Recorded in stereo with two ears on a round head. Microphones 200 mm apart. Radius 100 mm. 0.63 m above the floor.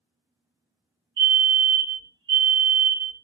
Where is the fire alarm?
20° right (ahead or behind), 2.5 m.